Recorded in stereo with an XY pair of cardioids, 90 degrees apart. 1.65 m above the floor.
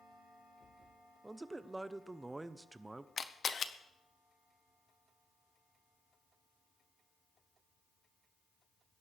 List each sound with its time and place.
1.2 s a man speaking: 20° right, 0.8 m
3.2 s a camera shutter: 45° left, 0.9 m